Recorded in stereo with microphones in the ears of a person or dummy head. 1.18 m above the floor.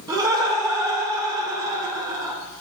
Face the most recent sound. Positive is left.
turn(degrees=-15)  # may be behind; listen again after turning